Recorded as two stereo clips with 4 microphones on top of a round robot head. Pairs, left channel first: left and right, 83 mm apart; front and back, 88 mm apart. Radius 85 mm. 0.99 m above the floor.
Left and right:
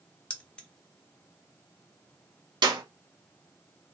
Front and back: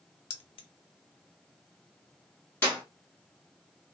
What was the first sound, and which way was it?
Keys jangling, 15° left.